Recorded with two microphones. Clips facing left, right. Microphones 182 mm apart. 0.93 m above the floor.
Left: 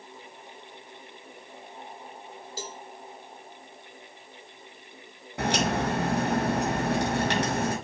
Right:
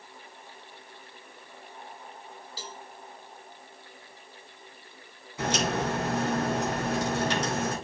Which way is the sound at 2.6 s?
45° left (ahead or behind).